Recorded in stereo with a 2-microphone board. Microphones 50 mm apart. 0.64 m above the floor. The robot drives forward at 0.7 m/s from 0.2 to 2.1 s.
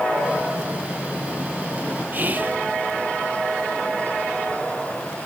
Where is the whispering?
35° right (ahead or behind), 0.6 m.